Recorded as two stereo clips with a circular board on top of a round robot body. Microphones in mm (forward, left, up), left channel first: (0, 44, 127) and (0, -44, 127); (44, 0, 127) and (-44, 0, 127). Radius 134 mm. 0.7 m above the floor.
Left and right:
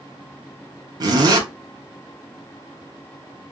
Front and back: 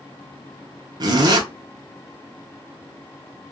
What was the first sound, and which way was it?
A zipper, 135° right.